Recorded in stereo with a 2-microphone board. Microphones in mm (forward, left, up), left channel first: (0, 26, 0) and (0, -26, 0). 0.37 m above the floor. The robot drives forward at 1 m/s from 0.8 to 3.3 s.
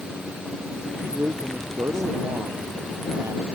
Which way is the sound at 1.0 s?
65° right (ahead or behind).